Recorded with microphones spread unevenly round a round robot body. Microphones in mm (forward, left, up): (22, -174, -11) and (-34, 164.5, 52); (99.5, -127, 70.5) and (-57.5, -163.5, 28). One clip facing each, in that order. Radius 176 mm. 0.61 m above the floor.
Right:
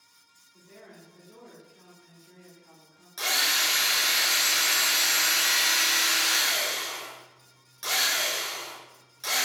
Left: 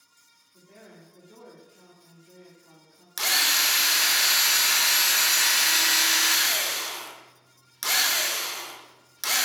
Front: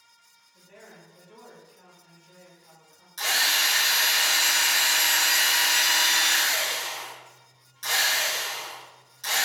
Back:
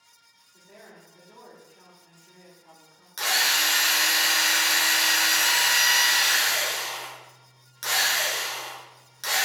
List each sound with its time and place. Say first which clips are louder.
0.5 s a woman speaking: even, back 1 dB; 175° left, 1.6 m
3.2 s a drill: even, back 1 dB; 155° left, 0.7 m